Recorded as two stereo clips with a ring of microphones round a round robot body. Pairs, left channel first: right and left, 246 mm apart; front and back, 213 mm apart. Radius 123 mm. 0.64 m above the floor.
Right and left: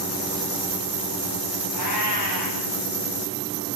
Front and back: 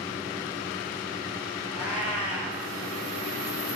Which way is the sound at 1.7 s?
65° right.